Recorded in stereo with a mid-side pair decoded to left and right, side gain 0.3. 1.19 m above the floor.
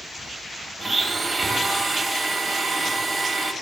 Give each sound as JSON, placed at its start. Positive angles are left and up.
{"t": 0.8, "sound": "a blender", "azimuth_deg": -25, "distance_m": 2.5}